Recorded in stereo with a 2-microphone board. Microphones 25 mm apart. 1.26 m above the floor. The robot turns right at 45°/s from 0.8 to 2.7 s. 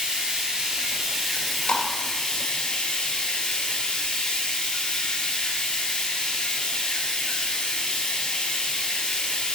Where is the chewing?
70° left (ahead or behind), 2 m; by 1.8 s 50° left (ahead or behind), 2 m.